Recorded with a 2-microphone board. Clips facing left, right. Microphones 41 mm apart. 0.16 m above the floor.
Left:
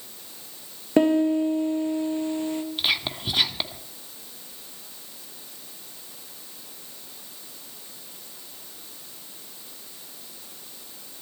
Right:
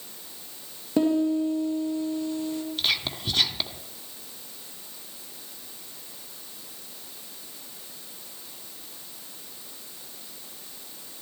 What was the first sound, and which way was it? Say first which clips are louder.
A piano: left 3 dB; 55° left (ahead or behind).